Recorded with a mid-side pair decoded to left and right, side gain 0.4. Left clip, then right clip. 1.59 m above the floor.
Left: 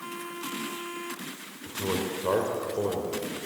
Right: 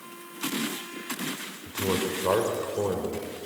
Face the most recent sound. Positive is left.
turn(degrees=-15)